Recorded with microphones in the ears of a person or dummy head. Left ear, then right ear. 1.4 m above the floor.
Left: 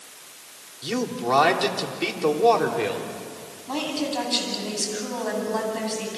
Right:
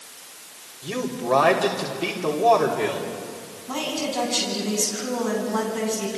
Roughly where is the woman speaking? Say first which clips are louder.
Even; left.